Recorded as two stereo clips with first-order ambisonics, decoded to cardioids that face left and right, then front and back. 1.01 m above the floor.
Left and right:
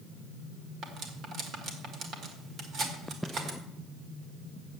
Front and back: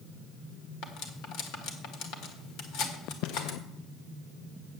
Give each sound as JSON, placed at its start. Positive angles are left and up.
{"t": 0.8, "sound": "cutlery clinking", "azimuth_deg": -35, "distance_m": 1.5}